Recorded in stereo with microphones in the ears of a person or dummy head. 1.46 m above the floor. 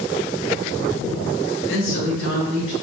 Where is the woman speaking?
85° left, 2 m; by 2.7 s 70° left (ahead or behind), 2.5 m.